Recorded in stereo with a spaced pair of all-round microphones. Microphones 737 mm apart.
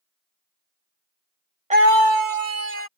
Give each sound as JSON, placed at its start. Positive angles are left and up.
{"t": 1.7, "sound": "a scream", "side_deg": -10}